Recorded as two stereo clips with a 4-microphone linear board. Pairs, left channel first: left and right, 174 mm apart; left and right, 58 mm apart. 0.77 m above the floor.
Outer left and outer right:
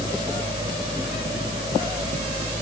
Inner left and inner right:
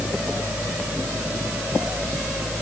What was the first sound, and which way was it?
Only background noise.